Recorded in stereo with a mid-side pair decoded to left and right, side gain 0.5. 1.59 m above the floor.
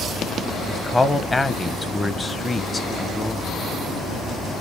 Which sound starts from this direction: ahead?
A man speaking, at 0.7 s.